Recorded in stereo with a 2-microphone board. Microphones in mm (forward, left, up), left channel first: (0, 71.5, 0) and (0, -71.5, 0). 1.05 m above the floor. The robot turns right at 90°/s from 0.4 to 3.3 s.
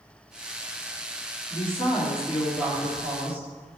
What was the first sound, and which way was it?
A woman speaking, 100° left.